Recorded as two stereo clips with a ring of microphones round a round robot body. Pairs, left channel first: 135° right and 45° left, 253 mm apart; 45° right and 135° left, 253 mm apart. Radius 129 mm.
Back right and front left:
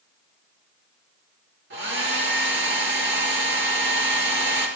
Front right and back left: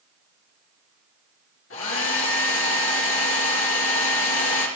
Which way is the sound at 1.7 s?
5° right.